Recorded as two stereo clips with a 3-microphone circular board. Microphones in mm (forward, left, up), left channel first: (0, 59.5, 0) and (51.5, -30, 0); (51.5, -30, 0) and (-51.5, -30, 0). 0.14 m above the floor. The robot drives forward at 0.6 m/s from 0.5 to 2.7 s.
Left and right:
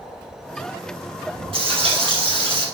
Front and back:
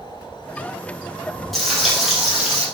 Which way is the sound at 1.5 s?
90° right.